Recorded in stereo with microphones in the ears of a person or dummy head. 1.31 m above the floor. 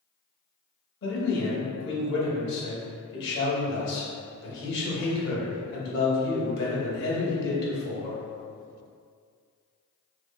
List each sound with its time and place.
1.0 s a man speaking: 65° left (ahead or behind), 1.0 m